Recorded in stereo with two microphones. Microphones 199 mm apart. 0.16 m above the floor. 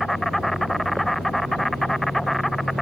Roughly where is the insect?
Centre.